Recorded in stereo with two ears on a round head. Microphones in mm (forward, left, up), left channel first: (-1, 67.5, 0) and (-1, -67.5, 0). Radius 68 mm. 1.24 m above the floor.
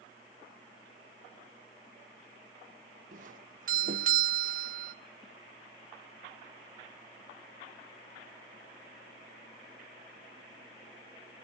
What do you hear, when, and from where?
3.1 s a doorbell: 55° right (ahead or behind), 1.7 m